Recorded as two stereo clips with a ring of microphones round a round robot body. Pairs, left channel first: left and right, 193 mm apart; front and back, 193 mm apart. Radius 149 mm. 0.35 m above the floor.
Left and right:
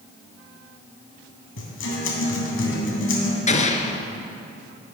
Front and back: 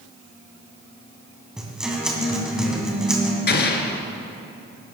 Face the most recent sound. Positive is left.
turn(degrees=35)